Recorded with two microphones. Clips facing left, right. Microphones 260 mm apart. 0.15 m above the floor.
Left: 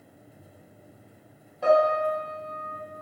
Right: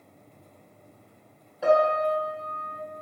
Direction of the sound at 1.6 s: 5° right (ahead or behind).